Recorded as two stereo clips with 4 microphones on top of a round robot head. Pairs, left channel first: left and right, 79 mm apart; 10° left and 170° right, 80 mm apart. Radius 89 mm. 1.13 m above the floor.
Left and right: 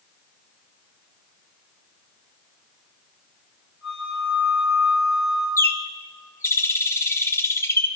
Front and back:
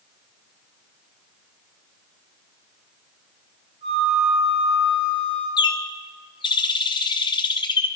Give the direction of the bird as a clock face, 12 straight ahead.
11 o'clock.